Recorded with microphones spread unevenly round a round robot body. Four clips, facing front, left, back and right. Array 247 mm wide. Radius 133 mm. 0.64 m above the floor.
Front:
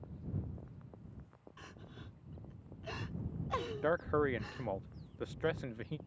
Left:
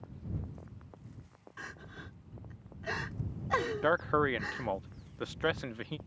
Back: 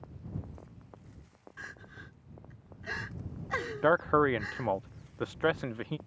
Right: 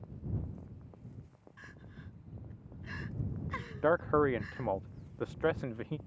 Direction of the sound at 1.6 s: 95° left.